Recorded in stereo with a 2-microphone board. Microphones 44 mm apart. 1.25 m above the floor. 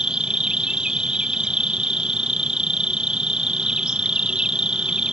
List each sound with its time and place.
0.0 s an insect: 20° right (ahead or behind)